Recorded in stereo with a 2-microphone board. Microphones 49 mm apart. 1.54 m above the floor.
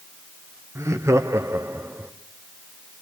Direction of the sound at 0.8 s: 75° right (ahead or behind).